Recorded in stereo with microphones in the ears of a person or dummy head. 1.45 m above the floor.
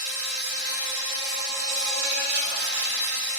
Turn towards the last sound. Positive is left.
turn(degrees=-50)  # may be behind; listen again after turning